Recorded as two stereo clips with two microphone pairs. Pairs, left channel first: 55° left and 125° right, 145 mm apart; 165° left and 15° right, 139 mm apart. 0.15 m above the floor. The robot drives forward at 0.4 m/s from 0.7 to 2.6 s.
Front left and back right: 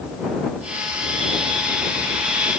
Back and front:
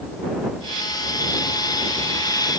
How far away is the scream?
No scream in this recording.